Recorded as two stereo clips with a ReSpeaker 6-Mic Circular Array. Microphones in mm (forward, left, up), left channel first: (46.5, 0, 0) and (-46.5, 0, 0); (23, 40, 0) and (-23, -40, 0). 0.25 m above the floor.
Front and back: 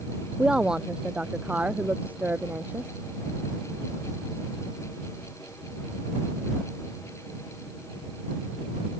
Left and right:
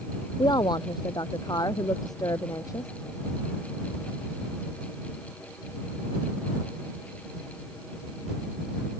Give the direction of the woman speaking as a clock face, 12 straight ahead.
9 o'clock.